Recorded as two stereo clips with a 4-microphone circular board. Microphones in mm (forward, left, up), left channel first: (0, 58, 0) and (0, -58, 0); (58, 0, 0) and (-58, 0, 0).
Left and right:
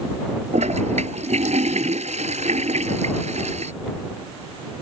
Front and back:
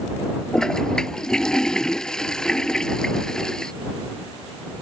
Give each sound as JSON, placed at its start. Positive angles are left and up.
{"t": 0.5, "sound": "a toilet flushing", "azimuth_deg": -85}